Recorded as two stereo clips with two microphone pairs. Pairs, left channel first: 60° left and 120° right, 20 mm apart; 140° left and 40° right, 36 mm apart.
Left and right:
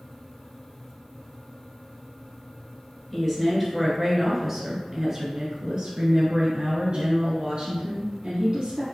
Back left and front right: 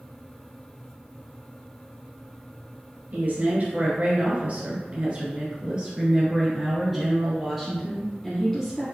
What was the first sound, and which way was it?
A woman speaking, 25° right.